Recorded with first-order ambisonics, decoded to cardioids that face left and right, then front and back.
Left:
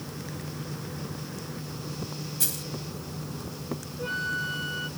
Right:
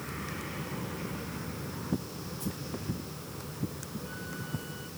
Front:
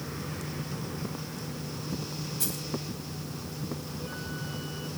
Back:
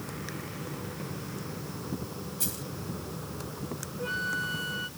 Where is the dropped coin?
85° left.